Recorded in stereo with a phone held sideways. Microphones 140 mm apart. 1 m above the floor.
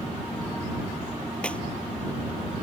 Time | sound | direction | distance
1.4 | a clap | 10° left (ahead or behind) | ?